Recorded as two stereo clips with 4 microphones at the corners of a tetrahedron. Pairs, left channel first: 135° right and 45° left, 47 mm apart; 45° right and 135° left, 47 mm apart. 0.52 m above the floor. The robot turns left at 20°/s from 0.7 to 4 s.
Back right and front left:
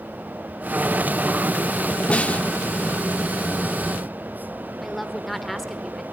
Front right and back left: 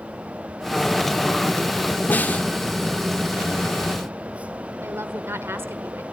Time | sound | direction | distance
2.1 | a snare drum | 75° right | 0.7 m
4.8 | a woman speaking | 135° left | 1.4 m